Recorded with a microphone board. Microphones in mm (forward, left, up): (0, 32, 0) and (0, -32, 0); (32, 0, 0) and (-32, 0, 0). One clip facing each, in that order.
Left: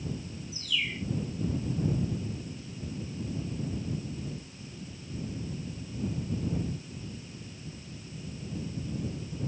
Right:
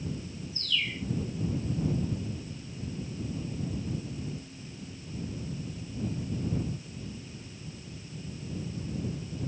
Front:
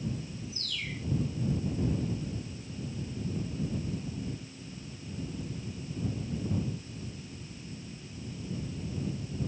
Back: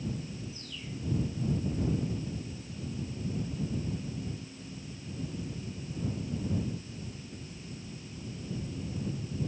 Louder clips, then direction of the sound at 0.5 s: Even, front 3 dB; 10° left.